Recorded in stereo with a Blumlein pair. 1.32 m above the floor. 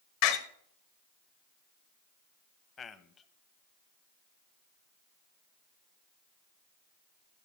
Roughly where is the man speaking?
Ahead.